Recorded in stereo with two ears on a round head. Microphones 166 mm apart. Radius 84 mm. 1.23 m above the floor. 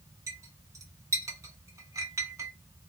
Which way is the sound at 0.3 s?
15° right (ahead or behind).